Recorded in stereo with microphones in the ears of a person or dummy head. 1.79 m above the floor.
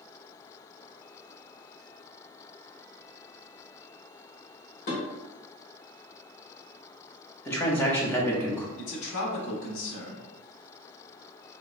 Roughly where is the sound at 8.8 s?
Left.